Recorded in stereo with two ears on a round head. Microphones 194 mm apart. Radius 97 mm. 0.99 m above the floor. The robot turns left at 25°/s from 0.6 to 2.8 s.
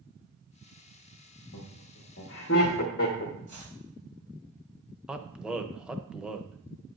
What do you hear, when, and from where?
1.5 s laughter: 75° left (ahead or behind), 1.3 m; by 3.3 s 45° left (ahead or behind), 1.3 m
3.5 s chopping: 35° right (ahead or behind), 5 m
5.1 s a man speaking: 5° right (ahead or behind), 0.6 m